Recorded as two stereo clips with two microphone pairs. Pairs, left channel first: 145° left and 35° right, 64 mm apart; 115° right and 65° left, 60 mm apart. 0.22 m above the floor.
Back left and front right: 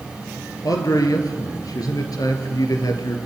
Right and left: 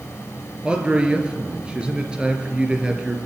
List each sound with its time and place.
0.6 s a man speaking: 140° left, 4 m